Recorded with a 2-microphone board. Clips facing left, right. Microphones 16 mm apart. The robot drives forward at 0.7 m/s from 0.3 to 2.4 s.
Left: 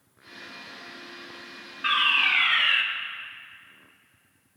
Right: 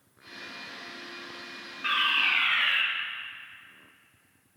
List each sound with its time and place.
1.8 s a fire alarm: 20° left (ahead or behind), 2.5 m